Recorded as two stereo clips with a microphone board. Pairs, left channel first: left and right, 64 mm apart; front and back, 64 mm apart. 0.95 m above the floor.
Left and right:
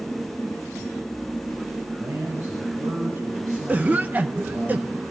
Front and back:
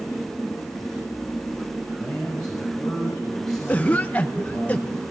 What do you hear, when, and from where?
2.0 s a man speaking: 80° right, 5.5 m; by 4.7 s 85° right, 7.5 m
3.7 s a cough: 50° right, 0.7 m